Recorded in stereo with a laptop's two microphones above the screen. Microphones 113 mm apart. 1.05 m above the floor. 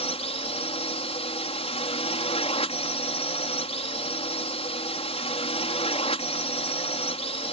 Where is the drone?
60° left (ahead or behind).